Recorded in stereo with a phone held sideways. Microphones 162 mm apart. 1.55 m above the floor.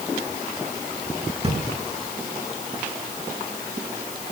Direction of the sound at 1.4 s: 40° right (ahead or behind).